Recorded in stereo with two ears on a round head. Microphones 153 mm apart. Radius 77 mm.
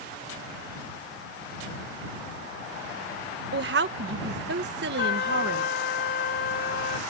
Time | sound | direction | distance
3.5 | a woman speaking | 70° right (ahead or behind) | ?
5.0 | a trumpet | 60° left (ahead or behind) | ?